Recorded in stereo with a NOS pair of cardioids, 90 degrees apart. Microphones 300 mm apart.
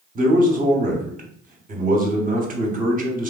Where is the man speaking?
30° right, 0.8 m.